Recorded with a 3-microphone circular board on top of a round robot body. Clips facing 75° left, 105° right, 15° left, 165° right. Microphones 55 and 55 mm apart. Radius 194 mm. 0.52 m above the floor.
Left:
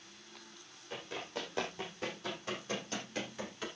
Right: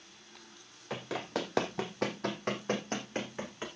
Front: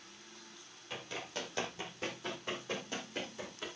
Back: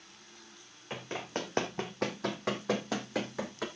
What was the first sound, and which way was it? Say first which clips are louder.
Running footsteps: right 6 dB, back 5 dB; 100° right.